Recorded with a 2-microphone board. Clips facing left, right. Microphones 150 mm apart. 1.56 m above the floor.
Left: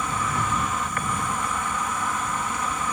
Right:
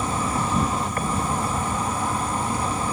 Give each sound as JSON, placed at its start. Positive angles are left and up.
{"t": 0.0, "sound": "an insect", "side_deg": -35}